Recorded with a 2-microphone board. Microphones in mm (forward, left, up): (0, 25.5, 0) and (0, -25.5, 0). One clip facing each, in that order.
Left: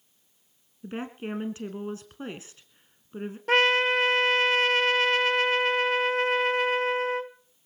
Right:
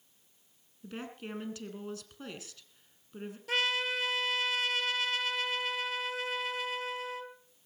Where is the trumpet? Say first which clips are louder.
Left 10 dB; 50° left (ahead or behind), 0.6 m.